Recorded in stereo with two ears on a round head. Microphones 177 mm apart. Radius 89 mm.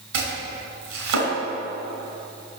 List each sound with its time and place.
0.1 s chopping: 85° right, 3 m